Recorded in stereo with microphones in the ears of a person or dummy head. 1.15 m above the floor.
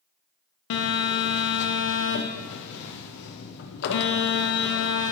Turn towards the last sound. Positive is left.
turn(degrees=60)  # may be behind; listen again after turning